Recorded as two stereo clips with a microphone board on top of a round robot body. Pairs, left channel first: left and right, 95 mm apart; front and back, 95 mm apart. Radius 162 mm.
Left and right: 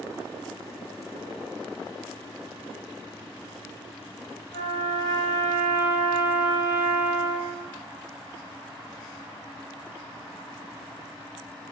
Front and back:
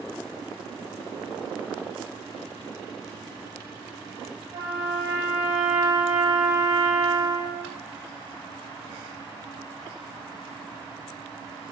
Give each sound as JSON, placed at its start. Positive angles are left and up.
{"t": 4.5, "sound": "a trumpet", "azimuth_deg": 140, "distance_m": 1.7}